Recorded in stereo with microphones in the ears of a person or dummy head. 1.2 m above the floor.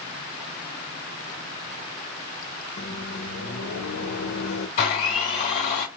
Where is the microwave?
65° left (ahead or behind), 0.8 m.